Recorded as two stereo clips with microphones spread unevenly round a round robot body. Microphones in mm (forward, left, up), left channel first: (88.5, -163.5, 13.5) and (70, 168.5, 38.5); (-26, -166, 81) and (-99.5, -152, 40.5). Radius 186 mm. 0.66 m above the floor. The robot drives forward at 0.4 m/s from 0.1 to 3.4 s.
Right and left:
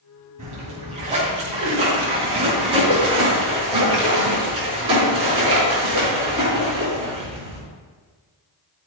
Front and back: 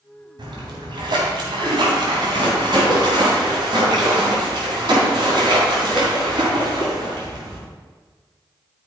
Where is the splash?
165° left, 2.5 m; by 7.6 s 170° left, 4 m.